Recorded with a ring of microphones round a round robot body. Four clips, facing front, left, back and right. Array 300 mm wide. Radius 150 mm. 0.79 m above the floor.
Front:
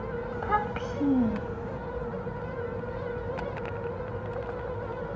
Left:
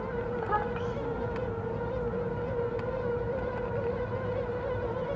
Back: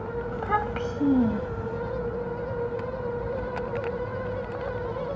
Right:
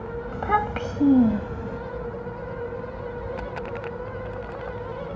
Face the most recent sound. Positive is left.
turn(degrees=-95)